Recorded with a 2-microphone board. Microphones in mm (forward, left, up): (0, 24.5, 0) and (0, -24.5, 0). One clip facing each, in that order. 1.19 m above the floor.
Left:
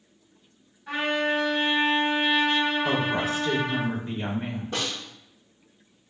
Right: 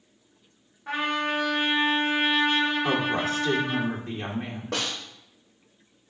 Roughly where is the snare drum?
Right.